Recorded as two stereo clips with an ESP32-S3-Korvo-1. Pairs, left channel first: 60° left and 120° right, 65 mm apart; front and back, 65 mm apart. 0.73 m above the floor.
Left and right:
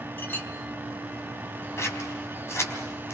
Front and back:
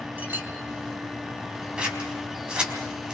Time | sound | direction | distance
0.2 | a clink | 120° left | 4 m
1.8 | scissors | 110° left | 4 m